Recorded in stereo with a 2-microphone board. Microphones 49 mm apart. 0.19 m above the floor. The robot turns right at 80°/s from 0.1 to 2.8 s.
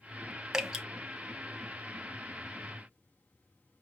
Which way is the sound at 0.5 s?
10° right (ahead or behind).